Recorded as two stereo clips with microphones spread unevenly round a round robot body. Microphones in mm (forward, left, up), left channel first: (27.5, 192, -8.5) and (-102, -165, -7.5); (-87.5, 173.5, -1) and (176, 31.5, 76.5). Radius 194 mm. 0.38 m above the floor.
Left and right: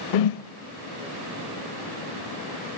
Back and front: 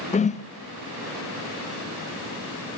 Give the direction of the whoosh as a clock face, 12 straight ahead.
9 o'clock.